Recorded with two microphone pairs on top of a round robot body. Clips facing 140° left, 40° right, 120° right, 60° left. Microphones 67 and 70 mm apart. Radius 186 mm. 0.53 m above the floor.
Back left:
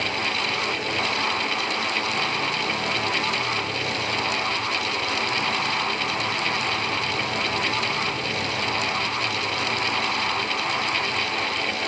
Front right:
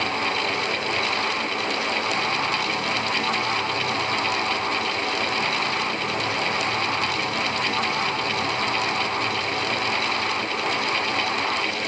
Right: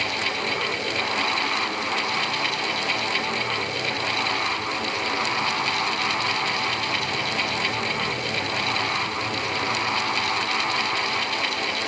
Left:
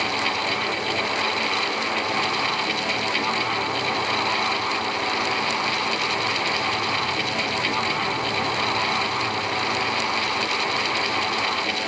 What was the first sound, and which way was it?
Only background noise.